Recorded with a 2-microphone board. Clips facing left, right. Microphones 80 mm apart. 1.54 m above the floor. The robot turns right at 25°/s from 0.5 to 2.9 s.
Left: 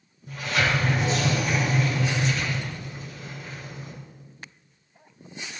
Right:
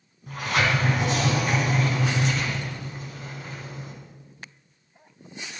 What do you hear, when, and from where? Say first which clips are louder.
0.3 s a sliding door: right 1 dB; 105° right, 3.5 m; by 3.9 s 45° right, 3.5 m